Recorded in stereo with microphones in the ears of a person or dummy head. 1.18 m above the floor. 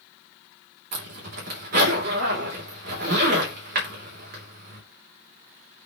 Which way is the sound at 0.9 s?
65° right (ahead or behind).